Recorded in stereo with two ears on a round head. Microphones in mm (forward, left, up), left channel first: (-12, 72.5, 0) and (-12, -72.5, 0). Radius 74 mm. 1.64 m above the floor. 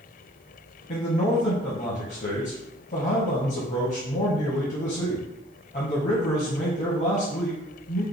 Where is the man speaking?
50° left (ahead or behind), 0.9 m.